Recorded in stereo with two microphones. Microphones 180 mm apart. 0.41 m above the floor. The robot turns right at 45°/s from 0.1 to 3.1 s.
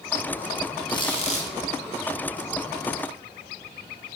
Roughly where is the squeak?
Left.